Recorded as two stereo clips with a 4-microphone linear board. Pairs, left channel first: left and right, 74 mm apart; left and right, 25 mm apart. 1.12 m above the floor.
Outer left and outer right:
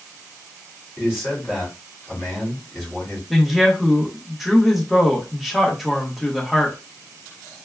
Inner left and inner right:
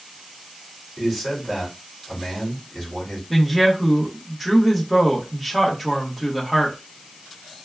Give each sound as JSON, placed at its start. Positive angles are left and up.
{"t": 1.0, "sound": "a man speaking", "side_deg": -10, "distance_m": 2.5}
{"t": 3.3, "sound": "a woman speaking", "side_deg": -5, "distance_m": 1.3}